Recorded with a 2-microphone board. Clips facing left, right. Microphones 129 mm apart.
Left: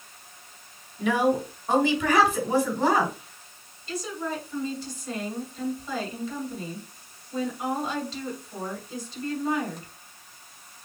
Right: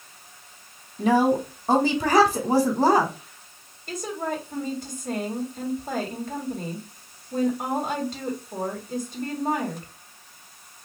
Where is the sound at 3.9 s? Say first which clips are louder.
Right 2 dB; 50° right (ahead or behind), 2 m.